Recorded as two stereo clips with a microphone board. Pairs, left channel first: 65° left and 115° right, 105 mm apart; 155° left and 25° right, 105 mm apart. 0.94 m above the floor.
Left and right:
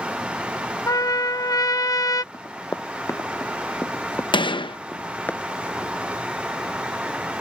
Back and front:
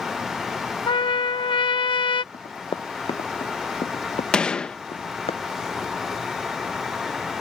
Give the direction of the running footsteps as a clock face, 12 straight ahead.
8 o'clock.